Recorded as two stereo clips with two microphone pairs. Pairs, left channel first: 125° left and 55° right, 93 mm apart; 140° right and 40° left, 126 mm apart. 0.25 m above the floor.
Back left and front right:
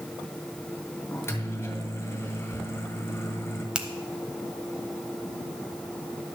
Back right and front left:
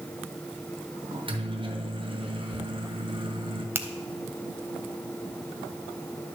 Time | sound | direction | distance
1.1 | a microwave | 65° left | 1.9 m
3.8 | a finger snap | 10° left | 0.8 m